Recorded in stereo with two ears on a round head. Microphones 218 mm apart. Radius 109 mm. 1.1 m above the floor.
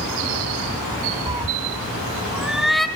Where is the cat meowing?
20° right (ahead or behind), 0.8 m; by 2.9 s centre (ahead or behind), 1.5 m.